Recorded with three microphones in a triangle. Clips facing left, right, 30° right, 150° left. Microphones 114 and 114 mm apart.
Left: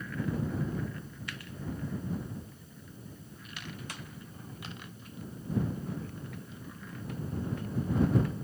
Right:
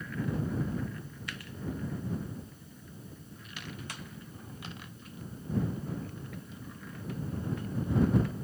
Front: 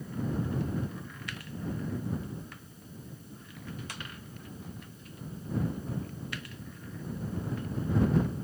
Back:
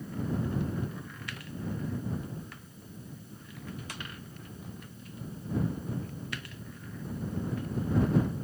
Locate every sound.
Only background noise.